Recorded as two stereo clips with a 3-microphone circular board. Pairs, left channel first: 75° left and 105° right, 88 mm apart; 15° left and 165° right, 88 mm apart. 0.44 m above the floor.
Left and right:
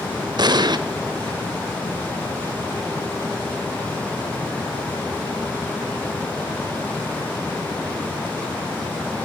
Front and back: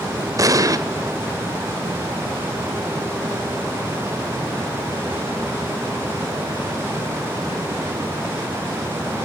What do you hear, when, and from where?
0.4 s an explosion: 125° right, 1.0 m